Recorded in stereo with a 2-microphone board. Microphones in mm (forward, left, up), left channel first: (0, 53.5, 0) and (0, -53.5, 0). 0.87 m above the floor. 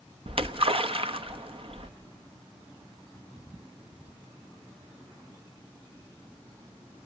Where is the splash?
60° right (ahead or behind), 1.0 m.